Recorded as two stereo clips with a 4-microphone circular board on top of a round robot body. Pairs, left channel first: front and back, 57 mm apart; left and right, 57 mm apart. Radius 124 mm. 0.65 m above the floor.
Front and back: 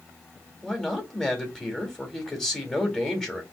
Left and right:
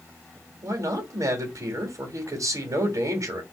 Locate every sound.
0.6 s a man speaking: 85° right, 1.8 m